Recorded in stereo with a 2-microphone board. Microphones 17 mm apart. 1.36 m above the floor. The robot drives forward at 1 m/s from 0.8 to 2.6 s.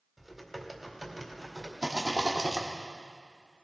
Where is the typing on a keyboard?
5° right (ahead or behind), 1.8 m.